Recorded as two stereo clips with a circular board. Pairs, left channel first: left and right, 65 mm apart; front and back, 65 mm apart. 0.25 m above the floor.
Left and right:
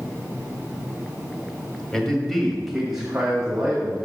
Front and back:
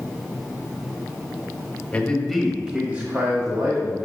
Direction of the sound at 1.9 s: 20° left.